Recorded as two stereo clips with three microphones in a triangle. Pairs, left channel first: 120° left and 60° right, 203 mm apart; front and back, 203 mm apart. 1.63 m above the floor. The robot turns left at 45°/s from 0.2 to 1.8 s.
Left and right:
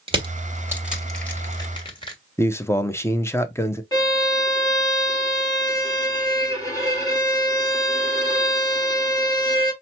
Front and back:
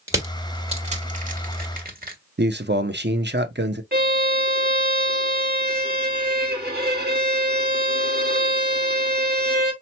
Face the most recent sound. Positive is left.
turn(degrees=-175)